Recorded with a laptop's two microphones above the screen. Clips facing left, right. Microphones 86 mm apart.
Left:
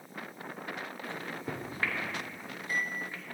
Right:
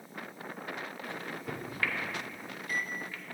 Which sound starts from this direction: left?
A microwave, at 1.0 s.